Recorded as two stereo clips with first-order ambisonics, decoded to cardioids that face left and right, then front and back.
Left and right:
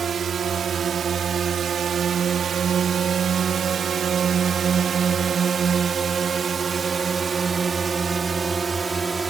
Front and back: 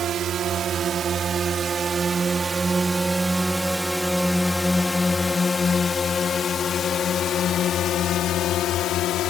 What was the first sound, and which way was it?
A drone, 145° right.